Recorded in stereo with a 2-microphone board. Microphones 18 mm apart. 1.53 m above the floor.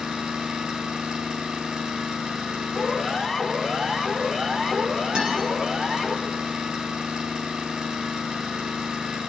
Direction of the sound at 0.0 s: 55° right (ahead or behind).